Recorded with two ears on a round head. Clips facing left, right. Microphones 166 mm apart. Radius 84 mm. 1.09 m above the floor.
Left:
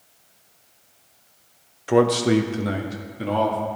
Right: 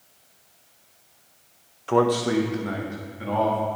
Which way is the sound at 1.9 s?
15° left (ahead or behind).